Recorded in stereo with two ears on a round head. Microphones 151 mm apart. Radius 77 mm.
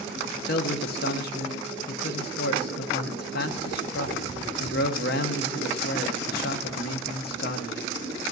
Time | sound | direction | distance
0.5 | a man speaking | 65° left (ahead or behind) | 0.8 m